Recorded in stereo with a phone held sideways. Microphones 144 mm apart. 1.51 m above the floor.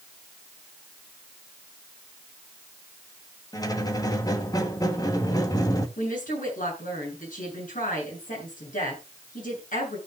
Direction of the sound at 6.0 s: 85° left.